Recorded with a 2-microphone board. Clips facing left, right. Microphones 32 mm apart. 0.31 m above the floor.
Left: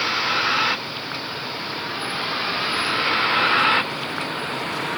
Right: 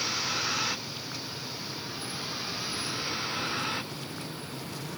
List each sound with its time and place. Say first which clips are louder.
0.0 s a vehicle: left 10 dB; 40° left (ahead or behind); by 5.0 s 65° left (ahead or behind)